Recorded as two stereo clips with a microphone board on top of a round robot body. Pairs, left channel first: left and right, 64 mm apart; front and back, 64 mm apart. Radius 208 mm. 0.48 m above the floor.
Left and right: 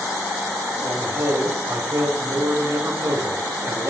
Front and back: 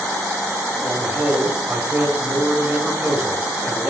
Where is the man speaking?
115° right, 3.5 m.